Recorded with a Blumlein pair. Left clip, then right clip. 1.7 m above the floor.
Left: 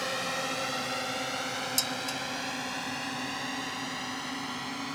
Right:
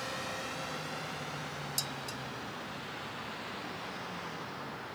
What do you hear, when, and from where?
0.0 s a drone: 70° left; by 5.0 s 45° left
1.8 s dishes clattering: 20° left